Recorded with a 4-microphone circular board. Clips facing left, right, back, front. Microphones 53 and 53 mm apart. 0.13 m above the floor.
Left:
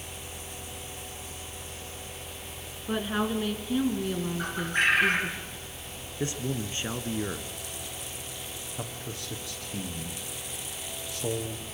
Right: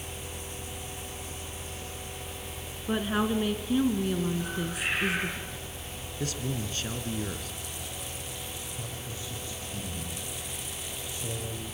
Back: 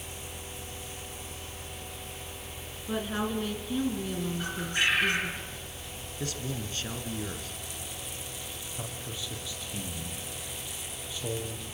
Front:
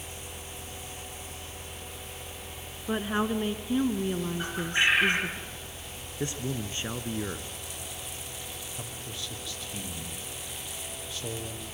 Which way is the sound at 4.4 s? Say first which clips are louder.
Left 5 dB, front 3 dB; 65° left.